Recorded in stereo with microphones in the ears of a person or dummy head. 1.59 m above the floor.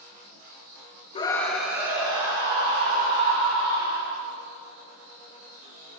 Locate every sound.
1.1 s a scream: 30° left (ahead or behind), 0.8 m; by 4.1 s 30° right (ahead or behind), 4.5 m